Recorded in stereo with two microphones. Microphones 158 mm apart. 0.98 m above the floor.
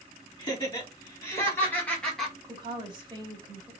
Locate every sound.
0.4 s laughter: 25° left (ahead or behind), 2.5 m; by 2.3 s centre (ahead or behind), 1.2 m
2.4 s a woman speaking: 30° right (ahead or behind), 2 m